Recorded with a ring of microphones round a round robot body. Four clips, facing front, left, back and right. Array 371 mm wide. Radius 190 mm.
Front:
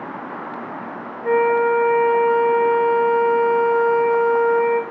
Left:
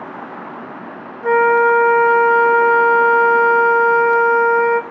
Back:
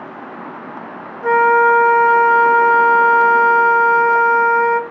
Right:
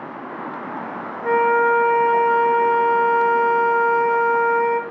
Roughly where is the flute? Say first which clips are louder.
Left 4 dB, back 5 dB; behind.